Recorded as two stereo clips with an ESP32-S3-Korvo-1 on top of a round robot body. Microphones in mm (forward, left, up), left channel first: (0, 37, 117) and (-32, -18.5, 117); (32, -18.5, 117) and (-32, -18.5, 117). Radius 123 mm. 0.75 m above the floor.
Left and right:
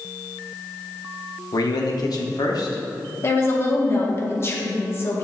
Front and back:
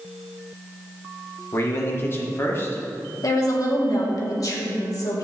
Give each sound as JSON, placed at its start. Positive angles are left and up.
{"t": 1.5, "sound": "a man speaking", "azimuth_deg": 50, "distance_m": 1.9}
{"t": 3.2, "sound": "a woman speaking", "azimuth_deg": 15, "distance_m": 2.5}